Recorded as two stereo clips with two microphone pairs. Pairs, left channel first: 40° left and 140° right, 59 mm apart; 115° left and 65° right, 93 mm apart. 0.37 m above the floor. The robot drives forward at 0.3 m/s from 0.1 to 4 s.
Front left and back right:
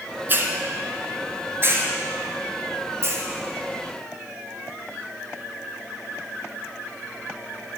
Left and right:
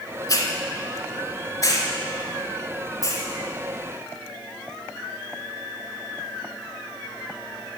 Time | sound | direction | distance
0.3 | a hiss | 165° left | 1.1 m